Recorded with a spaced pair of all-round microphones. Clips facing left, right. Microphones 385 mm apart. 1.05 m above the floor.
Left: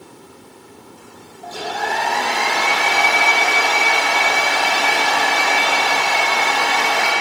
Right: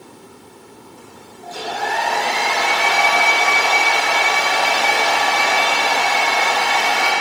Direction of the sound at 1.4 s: 55° left (ahead or behind).